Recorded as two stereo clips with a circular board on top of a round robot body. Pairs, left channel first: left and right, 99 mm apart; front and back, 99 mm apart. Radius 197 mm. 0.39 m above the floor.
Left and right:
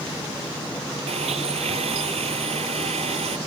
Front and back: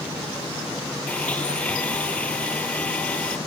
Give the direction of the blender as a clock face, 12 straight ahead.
3 o'clock.